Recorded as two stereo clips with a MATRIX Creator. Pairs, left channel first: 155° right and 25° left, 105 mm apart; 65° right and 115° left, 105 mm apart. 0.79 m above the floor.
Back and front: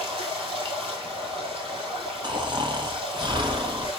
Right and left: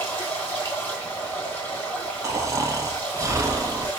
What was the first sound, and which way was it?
Running water, straight ahead.